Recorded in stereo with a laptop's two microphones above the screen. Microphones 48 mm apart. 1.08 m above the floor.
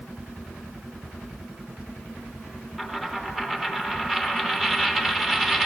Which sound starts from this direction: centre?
A dropped coin, at 2.8 s.